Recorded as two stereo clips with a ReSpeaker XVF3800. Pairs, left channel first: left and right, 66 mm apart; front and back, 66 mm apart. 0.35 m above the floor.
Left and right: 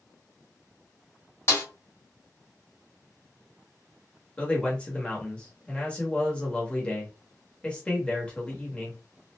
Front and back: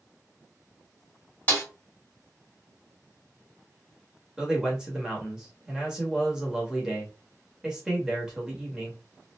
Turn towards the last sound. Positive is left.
turn(degrees=125)